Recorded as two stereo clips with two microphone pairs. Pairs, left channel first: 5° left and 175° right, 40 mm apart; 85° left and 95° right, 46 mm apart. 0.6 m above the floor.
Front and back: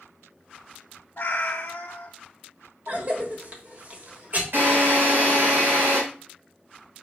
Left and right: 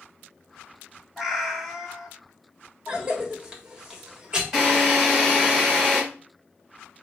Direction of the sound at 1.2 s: 15° right.